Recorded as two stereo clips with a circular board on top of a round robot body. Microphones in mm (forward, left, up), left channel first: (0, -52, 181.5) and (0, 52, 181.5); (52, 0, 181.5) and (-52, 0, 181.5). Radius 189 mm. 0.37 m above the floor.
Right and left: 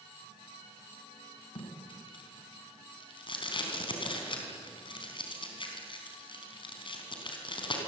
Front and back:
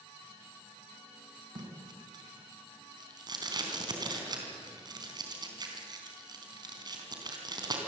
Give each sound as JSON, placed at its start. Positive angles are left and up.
{"t": 1.6, "sound": "tape being pulled", "azimuth_deg": -130, "distance_m": 4.0}